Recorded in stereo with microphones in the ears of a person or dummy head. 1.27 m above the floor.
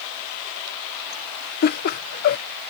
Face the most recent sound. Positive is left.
turn(degrees=50)  # may be behind; listen again after turning